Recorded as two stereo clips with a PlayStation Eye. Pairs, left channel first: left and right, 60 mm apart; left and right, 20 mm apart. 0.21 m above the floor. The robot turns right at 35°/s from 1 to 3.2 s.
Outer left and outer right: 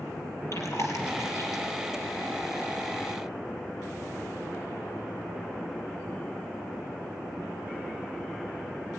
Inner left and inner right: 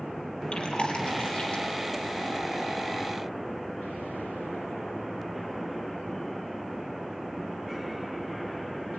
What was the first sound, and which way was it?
Chewing, 60° left (ahead or behind).